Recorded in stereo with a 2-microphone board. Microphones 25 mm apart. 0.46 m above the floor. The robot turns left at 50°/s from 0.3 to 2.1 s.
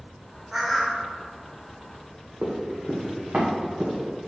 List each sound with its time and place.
0.5 s a bird: 20° right (ahead or behind), 0.6 m; by 1.0 s 5° left (ahead or behind), 0.6 m
2.4 s running footsteps: 50° right (ahead or behind), 1.2 m; by 4.3 s 80° right, 2 m